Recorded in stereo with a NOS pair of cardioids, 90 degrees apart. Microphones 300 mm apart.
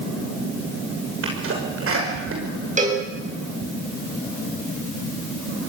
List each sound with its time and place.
1.2 s a sneeze: 45° right, 5.5 m
2.8 s a cowbell: 25° right, 7 m